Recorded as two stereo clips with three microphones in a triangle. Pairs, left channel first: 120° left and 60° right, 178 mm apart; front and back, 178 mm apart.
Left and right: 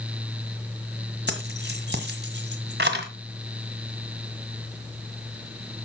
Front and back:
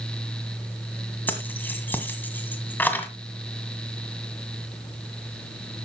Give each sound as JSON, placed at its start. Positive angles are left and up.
{"t": 1.3, "sound": "keys jangling", "azimuth_deg": -80, "distance_m": 1.8}